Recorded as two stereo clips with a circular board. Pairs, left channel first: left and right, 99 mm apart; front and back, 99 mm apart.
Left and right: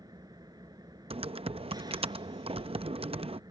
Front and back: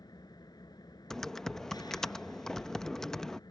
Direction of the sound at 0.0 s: 45° right.